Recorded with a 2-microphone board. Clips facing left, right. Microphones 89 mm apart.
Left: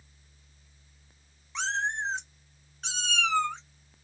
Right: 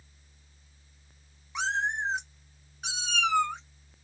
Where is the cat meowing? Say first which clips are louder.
Right 1 dB; 10° right (ahead or behind), 0.6 m.